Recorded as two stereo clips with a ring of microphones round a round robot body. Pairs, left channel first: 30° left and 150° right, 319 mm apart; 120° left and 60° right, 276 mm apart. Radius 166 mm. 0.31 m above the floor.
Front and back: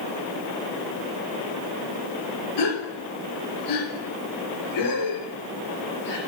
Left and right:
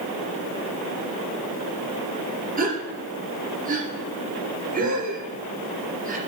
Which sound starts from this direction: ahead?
A gasp, at 2.6 s.